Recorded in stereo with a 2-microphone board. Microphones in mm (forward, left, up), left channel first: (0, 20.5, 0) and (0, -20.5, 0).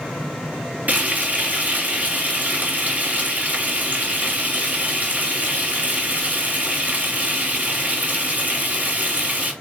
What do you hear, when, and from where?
0.9 s frying: 40° right (ahead or behind), 3.5 m